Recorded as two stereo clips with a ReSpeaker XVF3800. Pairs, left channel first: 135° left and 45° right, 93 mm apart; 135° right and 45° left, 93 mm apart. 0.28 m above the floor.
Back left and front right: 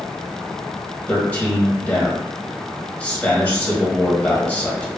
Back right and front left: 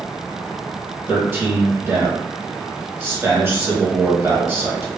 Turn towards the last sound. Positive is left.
turn(degrees=75)